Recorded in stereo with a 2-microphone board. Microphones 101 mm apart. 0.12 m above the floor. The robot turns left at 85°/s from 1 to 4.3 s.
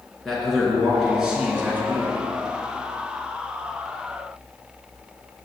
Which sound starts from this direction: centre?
A man speaking, at 0.2 s.